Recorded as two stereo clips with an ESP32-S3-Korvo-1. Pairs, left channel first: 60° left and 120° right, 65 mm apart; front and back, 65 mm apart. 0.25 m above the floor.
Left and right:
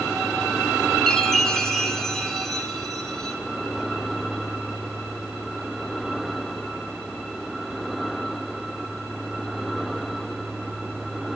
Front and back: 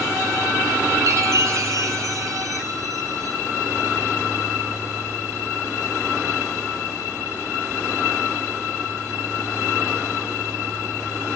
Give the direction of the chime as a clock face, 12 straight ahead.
7 o'clock.